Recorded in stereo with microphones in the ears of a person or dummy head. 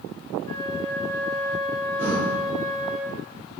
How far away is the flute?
About 0.8 m.